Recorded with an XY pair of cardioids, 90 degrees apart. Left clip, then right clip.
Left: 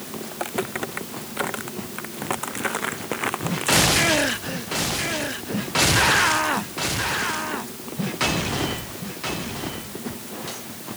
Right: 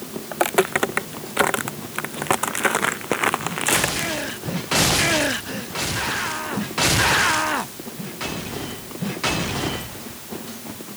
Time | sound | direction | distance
0.3 | footsteps | 65° right | ?